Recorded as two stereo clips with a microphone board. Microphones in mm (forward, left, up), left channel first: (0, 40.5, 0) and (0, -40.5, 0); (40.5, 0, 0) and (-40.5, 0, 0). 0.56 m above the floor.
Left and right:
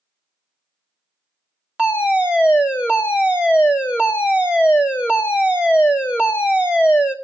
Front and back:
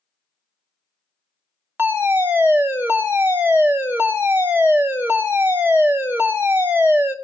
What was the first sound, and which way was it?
A fire alarm, 150° right.